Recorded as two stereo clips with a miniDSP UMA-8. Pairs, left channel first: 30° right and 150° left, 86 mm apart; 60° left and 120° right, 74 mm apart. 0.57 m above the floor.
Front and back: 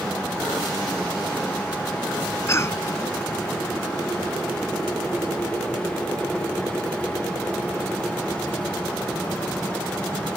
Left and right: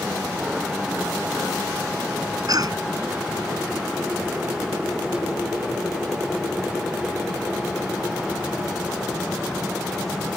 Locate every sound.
2.5 s a cough: 90° right